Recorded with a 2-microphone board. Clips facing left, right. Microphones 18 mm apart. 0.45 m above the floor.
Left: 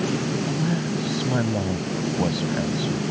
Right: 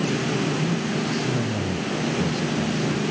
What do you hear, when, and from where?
0.5 s a man speaking: 50° left (ahead or behind)